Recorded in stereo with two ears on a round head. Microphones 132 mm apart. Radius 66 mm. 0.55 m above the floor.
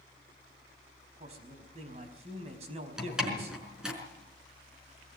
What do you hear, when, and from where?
1.2 s a man speaking: 45° right (ahead or behind), 4.5 m
3.0 s a door slam: 5° right (ahead or behind), 5 m